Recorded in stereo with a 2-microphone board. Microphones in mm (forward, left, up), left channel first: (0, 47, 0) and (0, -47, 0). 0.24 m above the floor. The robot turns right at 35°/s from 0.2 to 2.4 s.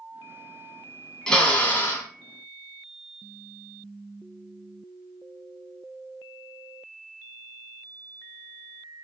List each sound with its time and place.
1.3 s a drill: 10° left (ahead or behind), 0.8 m; by 2.1 s 30° left (ahead or behind), 0.8 m